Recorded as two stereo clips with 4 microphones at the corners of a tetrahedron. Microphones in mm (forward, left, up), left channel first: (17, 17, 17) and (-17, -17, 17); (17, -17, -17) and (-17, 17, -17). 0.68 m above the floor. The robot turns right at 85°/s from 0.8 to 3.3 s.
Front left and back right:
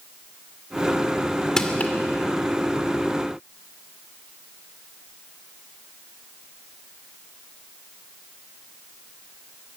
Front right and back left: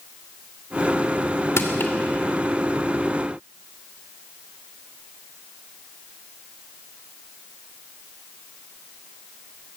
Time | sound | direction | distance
1.6 | crushing | 30° right | 2.5 m